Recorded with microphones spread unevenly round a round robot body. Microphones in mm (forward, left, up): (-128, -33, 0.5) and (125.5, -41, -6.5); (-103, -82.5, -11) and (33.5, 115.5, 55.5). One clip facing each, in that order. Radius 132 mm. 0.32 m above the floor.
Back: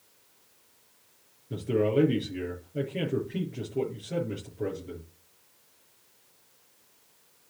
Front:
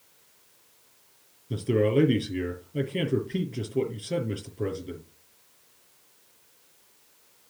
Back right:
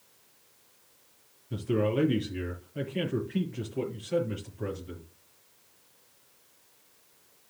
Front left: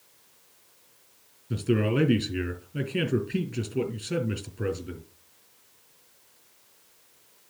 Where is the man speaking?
65° left, 3.5 m.